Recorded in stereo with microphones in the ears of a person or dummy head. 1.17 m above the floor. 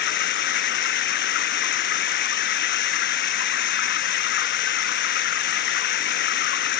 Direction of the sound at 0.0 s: 60° left (ahead or behind).